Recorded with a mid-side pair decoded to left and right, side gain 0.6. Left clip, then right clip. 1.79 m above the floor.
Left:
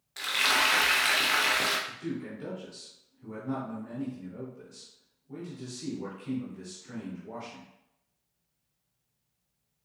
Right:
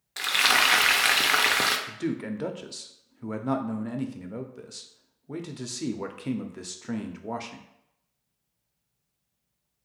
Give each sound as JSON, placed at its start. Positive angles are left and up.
{"t": 0.2, "sound": "frying", "azimuth_deg": -35, "distance_m": 0.5}
{"t": 1.9, "sound": "a man speaking", "azimuth_deg": -65, "distance_m": 0.6}